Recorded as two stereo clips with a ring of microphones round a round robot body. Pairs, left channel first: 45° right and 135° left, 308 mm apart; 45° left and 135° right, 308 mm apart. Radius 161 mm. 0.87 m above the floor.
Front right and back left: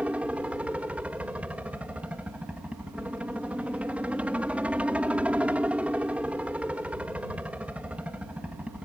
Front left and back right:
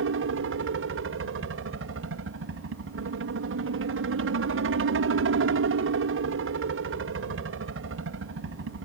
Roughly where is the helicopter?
Behind right.